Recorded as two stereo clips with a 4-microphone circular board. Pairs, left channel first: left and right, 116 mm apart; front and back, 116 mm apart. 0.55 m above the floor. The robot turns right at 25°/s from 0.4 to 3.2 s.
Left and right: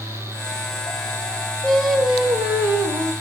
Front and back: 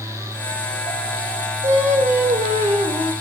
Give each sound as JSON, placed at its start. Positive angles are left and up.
{"t": 1.6, "sound": "singing", "azimuth_deg": 175, "distance_m": 0.8}